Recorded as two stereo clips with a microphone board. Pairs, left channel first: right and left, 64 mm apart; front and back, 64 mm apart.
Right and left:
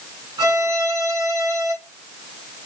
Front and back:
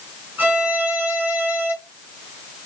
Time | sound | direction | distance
0.4 | a violin | 115° left | 4 m